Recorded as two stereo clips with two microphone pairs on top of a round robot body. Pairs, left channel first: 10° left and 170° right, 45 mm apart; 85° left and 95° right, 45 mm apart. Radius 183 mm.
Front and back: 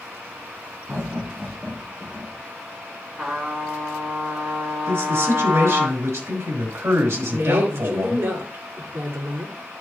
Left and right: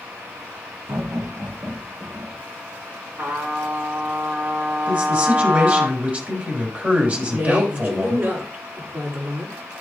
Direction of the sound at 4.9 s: 145° right.